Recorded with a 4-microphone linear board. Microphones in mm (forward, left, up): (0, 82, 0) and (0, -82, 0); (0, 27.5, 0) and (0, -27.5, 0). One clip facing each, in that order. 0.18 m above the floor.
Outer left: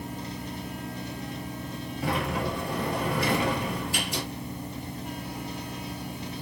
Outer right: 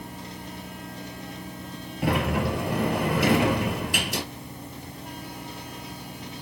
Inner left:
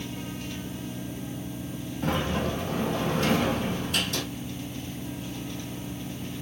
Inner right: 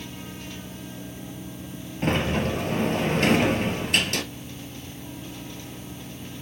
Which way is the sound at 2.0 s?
65° right (ahead or behind).